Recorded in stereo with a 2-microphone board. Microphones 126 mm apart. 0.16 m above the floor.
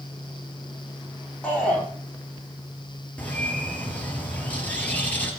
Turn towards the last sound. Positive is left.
turn(degrees=10)  # may be behind; listen again after turning